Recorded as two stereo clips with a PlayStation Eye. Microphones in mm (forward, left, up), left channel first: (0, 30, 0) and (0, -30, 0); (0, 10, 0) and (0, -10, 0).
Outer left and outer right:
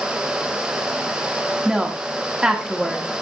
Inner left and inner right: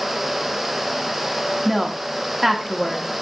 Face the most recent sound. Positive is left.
turn(degrees=-15)  # may be behind; listen again after turning